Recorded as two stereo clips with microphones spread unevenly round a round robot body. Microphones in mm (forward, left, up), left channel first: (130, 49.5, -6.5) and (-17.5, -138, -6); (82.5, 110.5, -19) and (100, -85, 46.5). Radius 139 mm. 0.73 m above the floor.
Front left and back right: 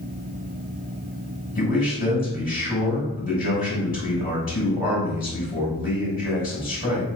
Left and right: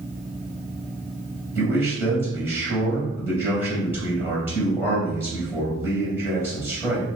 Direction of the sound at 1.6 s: 5° left.